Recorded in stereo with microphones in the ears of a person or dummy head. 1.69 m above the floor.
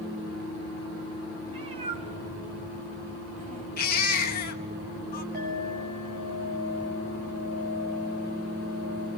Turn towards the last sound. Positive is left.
turn(degrees=-40)  # may be behind; listen again after turning